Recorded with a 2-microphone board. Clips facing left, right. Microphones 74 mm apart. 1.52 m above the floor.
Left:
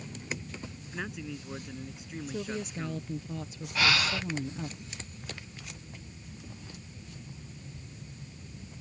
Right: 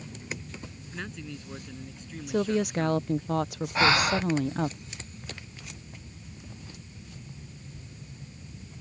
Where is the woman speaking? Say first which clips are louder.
Right 11 dB; 75° right (ahead or behind).